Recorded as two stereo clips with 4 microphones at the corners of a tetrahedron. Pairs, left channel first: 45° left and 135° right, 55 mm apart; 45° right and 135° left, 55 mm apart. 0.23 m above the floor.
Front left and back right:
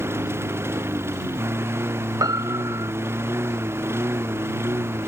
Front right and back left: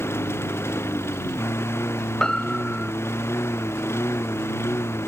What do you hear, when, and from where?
0.0 s a lawn mower: 90° right
2.2 s a piano: 125° right